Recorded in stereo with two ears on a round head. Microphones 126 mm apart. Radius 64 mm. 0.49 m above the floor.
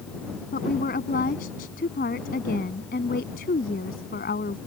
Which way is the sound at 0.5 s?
65° left (ahead or behind).